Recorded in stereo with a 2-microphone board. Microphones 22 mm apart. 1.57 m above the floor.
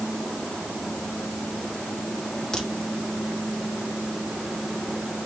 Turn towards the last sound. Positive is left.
turn(degrees=20)  # may be behind; listen again after turning